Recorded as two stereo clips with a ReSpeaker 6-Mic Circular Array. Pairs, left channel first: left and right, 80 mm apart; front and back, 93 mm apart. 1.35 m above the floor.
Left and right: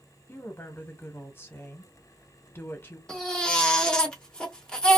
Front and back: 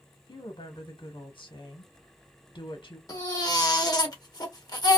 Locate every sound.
0.3 s a woman speaking: 25° left, 1.1 m
3.1 s a baby crying: 15° left, 1.0 m